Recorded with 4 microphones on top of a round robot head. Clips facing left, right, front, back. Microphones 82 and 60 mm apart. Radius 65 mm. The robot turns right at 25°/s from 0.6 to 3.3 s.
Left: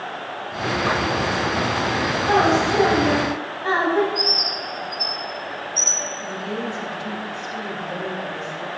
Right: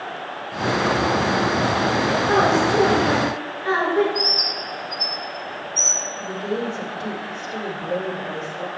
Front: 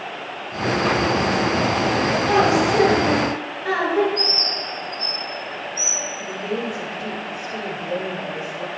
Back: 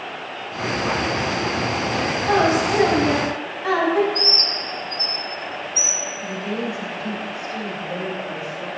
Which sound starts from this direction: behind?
A bird, at 4.2 s.